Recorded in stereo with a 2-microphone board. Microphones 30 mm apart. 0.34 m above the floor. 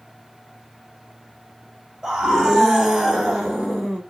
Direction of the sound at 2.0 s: 15° right (ahead or behind).